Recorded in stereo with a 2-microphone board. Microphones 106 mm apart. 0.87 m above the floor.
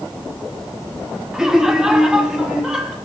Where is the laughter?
5° right (ahead or behind), 1.7 m.